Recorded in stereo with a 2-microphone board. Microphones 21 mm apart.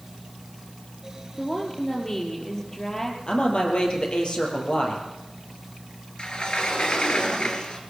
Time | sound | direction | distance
1.4 | a woman speaking | 20° left (ahead or behind) | 5.5 m
3.3 | a man speaking | 50° left (ahead or behind) | 5.5 m
6.2 | a sliding door | 45° left (ahead or behind) | 3 m